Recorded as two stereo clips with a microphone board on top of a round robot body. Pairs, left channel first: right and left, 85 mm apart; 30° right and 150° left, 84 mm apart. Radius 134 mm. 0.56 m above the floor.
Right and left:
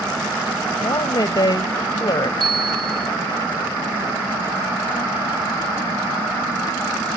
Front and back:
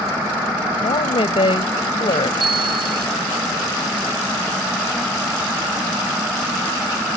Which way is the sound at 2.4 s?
120° left.